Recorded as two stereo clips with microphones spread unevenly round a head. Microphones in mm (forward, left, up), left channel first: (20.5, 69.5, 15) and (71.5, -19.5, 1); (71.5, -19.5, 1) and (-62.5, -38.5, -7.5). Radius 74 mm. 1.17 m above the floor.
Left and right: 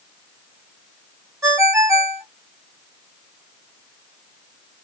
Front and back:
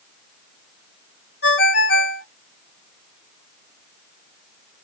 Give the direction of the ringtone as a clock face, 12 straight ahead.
12 o'clock.